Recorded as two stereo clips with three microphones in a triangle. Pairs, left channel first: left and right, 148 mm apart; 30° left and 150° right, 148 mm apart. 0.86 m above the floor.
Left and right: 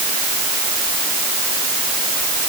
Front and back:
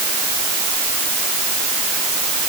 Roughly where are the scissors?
I don't hear scissors.